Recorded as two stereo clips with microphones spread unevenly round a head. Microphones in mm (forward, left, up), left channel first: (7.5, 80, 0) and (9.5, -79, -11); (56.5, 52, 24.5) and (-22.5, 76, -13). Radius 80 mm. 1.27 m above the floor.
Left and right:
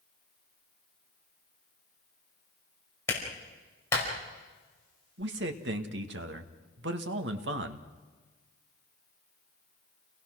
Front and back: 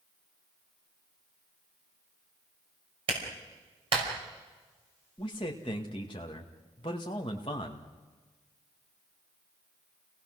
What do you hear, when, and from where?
3.1 s a clap: 170° left, 5.5 m
5.2 s a man speaking: 80° right, 1.9 m